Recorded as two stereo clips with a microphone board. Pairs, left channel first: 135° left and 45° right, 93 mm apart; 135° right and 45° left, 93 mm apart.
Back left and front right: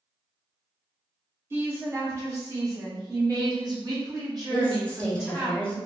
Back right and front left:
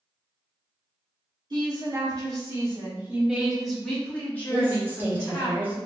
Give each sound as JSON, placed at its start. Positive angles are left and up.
{"t": 1.5, "sound": "a woman speaking", "azimuth_deg": 15, "distance_m": 1.4}
{"t": 4.5, "sound": "a woman speaking", "azimuth_deg": 75, "distance_m": 0.9}